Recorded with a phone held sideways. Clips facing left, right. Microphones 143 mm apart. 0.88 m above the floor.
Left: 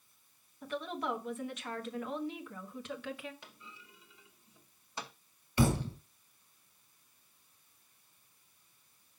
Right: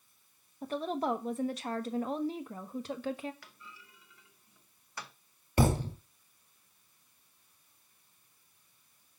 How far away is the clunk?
About 0.9 m.